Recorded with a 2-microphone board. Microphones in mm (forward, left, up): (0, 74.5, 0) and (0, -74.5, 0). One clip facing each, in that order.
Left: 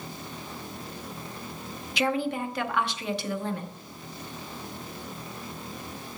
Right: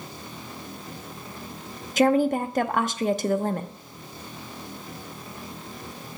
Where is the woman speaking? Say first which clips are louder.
Right 7 dB; 50° right (ahead or behind), 0.7 m.